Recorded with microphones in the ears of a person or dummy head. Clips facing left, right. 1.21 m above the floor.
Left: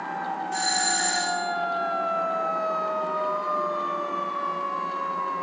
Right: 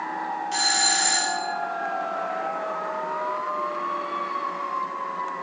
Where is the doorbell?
50° right (ahead or behind), 1.3 m.